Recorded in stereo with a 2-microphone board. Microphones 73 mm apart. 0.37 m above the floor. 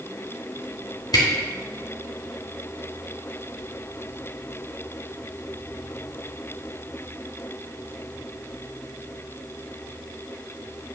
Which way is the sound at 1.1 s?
65° left (ahead or behind).